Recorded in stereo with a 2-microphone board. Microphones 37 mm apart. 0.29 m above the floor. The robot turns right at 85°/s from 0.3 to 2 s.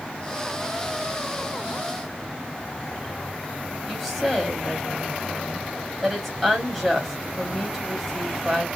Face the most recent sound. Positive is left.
turn(degrees=0)  # may be behind; listen again after turning